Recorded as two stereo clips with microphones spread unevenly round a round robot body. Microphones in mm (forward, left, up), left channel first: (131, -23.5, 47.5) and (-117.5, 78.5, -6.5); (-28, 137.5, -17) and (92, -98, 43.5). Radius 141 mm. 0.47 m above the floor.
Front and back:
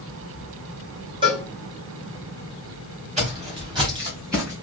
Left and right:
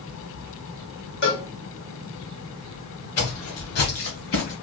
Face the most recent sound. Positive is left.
turn(degrees=70)